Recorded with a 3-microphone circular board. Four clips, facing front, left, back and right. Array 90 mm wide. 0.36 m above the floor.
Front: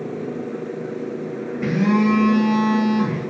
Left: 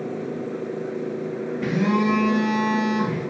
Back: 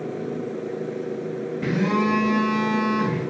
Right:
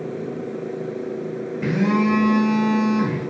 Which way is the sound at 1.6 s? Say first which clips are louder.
Right 2 dB, front 4 dB; 45° right.